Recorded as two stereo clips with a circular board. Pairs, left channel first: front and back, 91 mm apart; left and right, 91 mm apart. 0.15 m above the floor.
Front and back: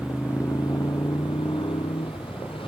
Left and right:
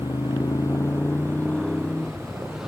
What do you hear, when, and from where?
0.0 s a motorcycle: 70° left; by 2.7 s 5° right